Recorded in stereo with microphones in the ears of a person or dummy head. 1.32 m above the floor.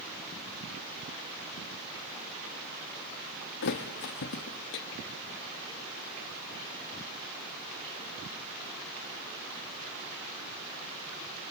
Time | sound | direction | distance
3.6 | a thud | 55° left (ahead or behind) | 0.9 m